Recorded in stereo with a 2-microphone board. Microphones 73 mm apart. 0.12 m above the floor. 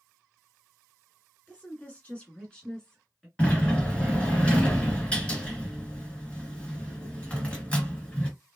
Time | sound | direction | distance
1.5 | a woman speaking | 20° left (ahead or behind) | 1.6 m
3.4 | a sliding door | 15° left (ahead or behind) | 1.4 m